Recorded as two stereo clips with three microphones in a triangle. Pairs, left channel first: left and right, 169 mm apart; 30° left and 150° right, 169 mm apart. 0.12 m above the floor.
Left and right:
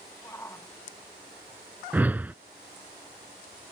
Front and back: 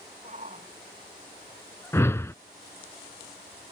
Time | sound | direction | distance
0.2 | a shout | 165° left | ?
1.9 | a whoosh | 25° right | ?